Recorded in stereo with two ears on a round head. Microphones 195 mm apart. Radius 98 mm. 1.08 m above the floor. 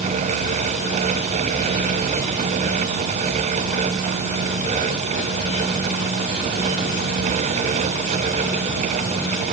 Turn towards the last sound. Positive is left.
No sound to turn to.